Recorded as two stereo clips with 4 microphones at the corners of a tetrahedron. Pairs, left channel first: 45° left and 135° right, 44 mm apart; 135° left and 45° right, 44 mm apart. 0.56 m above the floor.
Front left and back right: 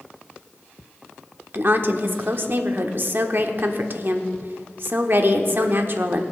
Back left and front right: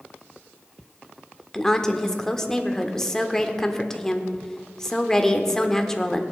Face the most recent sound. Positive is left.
turn(degrees=-150)